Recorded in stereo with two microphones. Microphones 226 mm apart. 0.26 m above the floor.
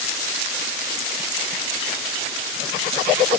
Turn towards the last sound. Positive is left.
No sound to turn to.